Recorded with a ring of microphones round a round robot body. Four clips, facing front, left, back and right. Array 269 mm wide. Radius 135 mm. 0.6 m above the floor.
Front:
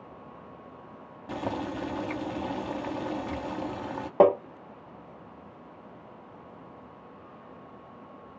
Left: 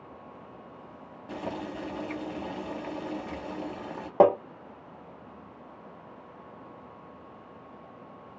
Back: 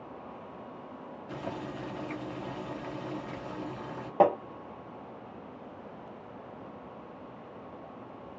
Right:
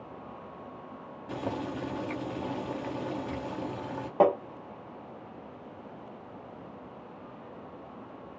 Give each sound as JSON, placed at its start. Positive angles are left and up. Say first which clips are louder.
{"t": 1.3, "sound": "boiling", "louder": "right 1 dB, front 6 dB", "azimuth_deg": 5, "distance_m": 0.7}
{"t": 4.2, "sound": "tapping", "louder": "left 3 dB, front 4 dB", "azimuth_deg": 50, "distance_m": 0.6}